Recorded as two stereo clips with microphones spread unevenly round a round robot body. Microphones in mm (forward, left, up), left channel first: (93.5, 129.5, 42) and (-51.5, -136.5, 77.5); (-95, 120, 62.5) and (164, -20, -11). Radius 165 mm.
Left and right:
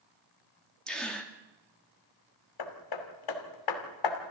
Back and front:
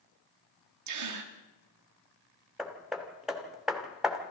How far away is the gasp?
About 2.5 m.